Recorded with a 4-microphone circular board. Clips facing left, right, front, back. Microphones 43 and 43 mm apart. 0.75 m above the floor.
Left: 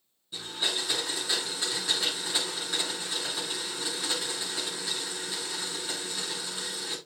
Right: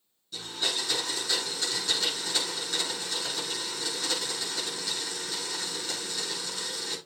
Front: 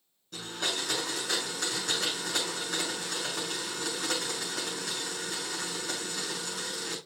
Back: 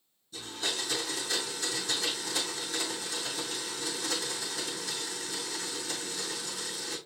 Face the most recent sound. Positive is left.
turn(degrees=20)